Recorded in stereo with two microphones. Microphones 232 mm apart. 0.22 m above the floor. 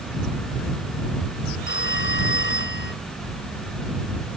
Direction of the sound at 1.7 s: 50° left (ahead or behind).